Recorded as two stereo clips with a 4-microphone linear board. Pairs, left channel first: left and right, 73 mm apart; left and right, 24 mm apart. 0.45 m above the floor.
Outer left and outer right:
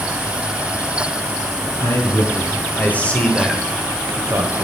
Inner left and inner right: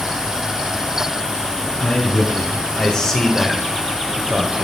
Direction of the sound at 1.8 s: 40° left (ahead or behind).